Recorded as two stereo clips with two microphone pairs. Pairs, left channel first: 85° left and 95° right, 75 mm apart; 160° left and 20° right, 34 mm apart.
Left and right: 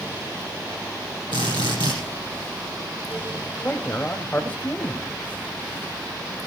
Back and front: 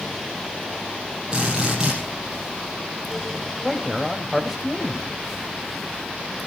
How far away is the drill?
About 7 m.